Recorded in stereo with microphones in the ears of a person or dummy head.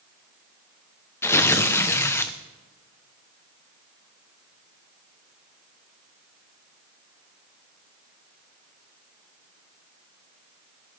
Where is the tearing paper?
10° left (ahead or behind), 0.9 m.